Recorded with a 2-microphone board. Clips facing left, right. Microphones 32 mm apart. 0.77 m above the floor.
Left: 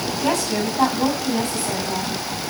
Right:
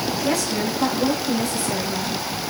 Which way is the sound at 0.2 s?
70° left (ahead or behind).